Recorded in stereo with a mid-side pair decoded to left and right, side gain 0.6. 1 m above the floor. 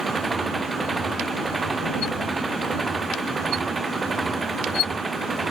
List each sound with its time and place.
0.0 s an engine running: 20° right